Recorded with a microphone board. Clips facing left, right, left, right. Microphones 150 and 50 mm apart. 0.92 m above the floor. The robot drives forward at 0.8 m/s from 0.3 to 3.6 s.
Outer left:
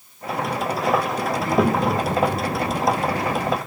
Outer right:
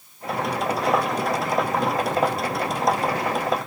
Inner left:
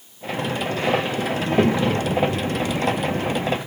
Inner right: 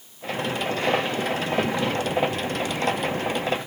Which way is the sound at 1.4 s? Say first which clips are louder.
Outer left 4 dB, inner left 9 dB; 65° left (ahead or behind).